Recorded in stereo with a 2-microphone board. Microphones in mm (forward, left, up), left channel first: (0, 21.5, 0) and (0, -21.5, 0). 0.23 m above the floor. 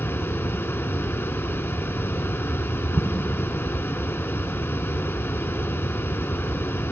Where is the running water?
70° left (ahead or behind), 0.7 m.